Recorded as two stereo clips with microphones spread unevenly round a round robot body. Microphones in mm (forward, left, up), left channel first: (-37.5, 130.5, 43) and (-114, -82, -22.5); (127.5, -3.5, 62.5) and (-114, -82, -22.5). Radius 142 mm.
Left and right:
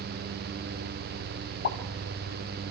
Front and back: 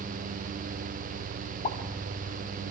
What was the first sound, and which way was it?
A pop, 75° left.